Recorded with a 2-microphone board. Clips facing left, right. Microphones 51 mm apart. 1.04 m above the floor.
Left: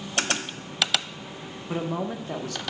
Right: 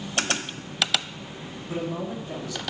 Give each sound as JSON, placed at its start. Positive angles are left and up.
{"t": 1.7, "sound": "a man speaking", "side_deg": 50, "distance_m": 1.0}